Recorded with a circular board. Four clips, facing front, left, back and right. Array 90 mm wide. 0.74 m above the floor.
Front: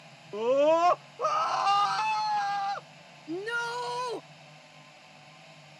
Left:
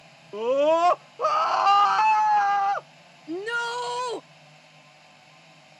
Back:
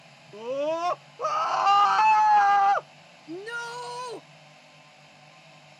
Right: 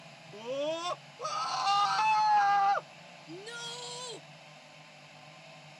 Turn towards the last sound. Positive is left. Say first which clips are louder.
# left 16 dB, front 3 dB
turn(degrees=80)